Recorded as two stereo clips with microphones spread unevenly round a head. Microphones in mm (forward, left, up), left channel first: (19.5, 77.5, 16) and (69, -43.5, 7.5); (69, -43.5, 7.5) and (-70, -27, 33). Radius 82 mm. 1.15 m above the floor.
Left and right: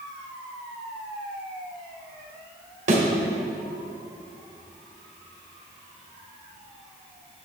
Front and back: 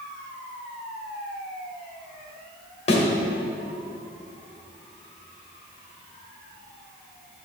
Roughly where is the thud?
Ahead right.